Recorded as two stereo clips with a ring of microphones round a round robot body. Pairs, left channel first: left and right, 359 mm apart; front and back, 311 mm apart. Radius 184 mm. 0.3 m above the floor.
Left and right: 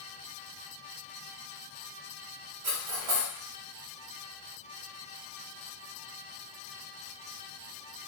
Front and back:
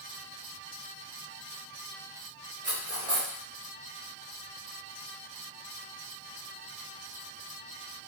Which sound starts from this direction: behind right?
Cutlery clinking, at 2.6 s.